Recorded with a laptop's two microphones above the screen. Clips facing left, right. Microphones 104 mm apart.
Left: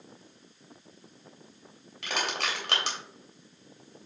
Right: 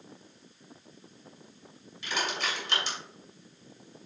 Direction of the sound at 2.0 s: 70° left (ahead or behind).